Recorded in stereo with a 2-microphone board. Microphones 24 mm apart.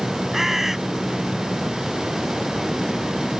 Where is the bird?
15° right (ahead or behind).